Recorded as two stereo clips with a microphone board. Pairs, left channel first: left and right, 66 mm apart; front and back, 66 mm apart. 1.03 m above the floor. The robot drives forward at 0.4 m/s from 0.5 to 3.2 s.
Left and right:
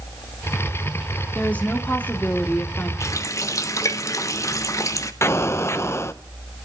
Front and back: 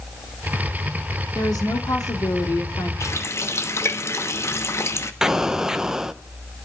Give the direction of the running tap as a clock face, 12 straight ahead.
11 o'clock.